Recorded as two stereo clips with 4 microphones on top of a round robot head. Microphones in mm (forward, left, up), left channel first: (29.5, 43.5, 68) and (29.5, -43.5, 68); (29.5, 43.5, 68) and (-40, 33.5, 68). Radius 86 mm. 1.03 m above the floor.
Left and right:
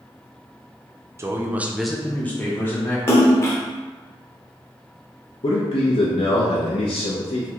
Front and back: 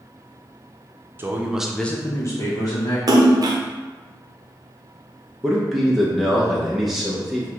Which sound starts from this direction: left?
A man speaking, at 5.4 s.